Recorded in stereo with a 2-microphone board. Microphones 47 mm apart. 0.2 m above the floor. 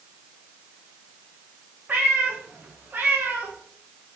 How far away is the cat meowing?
About 5.5 m.